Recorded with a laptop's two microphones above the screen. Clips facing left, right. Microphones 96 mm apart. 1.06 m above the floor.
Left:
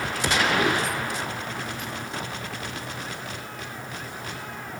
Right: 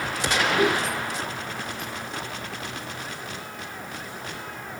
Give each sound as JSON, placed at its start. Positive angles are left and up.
{"t": 0.6, "sound": "a giggle", "side_deg": -5, "distance_m": 3.5}